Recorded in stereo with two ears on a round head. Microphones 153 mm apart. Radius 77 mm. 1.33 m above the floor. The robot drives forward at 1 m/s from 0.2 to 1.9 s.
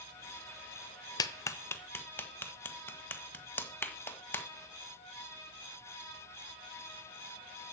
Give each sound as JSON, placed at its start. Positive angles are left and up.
{"t": 1.2, "sound": "a clap", "side_deg": 25, "distance_m": 0.9}